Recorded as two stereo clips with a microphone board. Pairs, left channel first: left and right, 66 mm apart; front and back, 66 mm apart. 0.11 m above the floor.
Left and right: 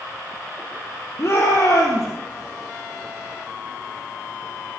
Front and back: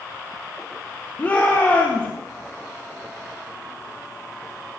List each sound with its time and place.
1.2 s a shout: 60° left, 3.5 m